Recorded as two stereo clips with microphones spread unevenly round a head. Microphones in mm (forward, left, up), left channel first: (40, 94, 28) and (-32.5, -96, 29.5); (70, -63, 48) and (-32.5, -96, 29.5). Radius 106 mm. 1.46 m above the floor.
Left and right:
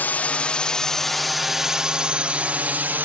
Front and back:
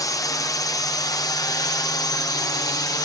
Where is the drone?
Straight ahead; by 3.1 s 35° right.